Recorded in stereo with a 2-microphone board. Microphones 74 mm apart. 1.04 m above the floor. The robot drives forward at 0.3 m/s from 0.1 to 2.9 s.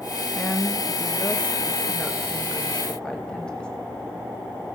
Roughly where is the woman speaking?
Left.